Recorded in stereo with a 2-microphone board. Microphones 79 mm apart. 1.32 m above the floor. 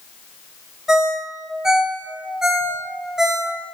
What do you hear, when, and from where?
0.9 s a ringtone: 5° right (ahead or behind), 0.9 m